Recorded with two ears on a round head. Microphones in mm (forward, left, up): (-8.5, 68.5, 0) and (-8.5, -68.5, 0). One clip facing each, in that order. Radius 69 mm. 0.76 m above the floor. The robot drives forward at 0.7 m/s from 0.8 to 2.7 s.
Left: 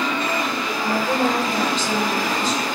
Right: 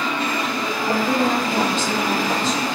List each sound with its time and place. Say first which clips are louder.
0.8 s a woman speaking: right 1 dB; 60° right (ahead or behind), 1.5 m; by 2.6 s 35° right (ahead or behind), 2 m